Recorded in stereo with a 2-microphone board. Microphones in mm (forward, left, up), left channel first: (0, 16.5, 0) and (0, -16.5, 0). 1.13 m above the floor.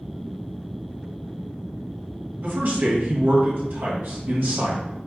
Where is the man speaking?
70° right (ahead or behind), 1.7 m.